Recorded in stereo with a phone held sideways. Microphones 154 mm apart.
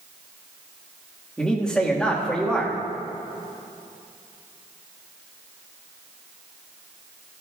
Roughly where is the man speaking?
Centre.